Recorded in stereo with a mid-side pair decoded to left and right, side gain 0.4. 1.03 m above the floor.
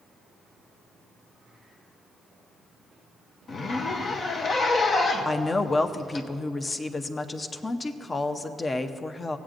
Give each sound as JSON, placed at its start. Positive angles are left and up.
{"t": 3.5, "sound": "a zipper", "azimuth_deg": 55, "distance_m": 0.8}
{"t": 5.2, "sound": "a woman speaking", "azimuth_deg": 35, "distance_m": 0.7}